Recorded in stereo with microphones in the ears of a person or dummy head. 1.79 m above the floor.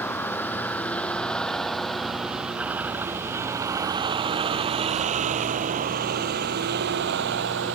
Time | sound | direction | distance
0.0 | a vehicle | 10° left (ahead or behind) | ?